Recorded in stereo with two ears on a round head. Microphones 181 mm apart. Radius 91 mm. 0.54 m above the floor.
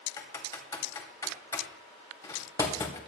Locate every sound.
0.2 s typing on a keyboard: 15° left (ahead or behind), 3 m